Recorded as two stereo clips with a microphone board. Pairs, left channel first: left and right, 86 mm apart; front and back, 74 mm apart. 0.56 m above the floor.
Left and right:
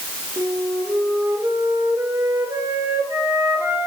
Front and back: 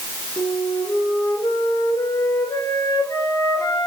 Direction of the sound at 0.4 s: 40° right.